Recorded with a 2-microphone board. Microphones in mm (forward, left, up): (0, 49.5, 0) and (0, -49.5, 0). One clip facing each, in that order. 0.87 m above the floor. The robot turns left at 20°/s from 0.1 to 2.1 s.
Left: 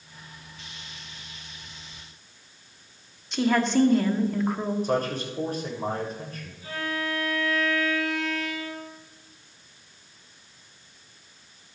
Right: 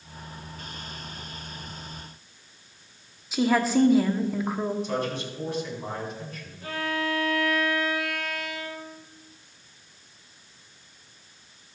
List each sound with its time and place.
3.3 s a woman speaking: 5° right (ahead or behind), 1.4 m
4.8 s a man speaking: 50° left (ahead or behind), 4 m
6.6 s a violin: 65° right (ahead or behind), 6.5 m